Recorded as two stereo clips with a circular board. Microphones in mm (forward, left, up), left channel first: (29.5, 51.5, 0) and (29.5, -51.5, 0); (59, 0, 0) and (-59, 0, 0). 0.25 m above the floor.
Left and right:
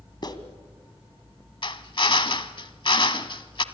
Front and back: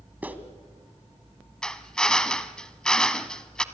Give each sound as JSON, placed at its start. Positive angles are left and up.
{"t": 0.2, "sound": "a clap", "azimuth_deg": 110, "distance_m": 1.8}
{"t": 1.6, "sound": "a drill", "azimuth_deg": 80, "distance_m": 1.0}